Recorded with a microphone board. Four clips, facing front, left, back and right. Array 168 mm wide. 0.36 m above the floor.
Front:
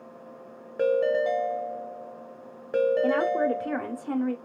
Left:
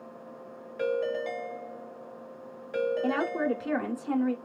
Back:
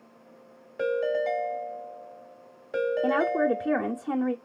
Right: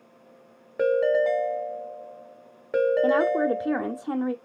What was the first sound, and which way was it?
A ringtone, 55° right.